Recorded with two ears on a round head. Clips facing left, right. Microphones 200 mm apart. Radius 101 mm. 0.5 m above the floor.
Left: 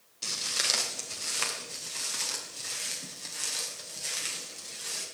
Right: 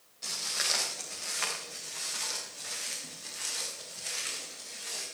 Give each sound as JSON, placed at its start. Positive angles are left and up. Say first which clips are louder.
{"t": 0.2, "sound": "footsteps", "louder": "left 2 dB", "side_deg": 45, "distance_m": 4.5}